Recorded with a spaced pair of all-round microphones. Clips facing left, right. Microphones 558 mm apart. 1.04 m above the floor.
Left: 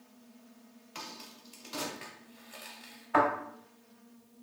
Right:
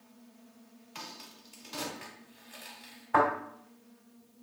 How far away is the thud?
About 2.5 m.